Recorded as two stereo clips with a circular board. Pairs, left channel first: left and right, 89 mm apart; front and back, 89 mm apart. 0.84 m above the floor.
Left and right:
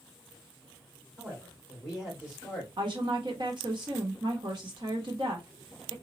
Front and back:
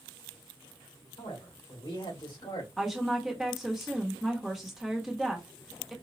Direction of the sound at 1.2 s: 10° right.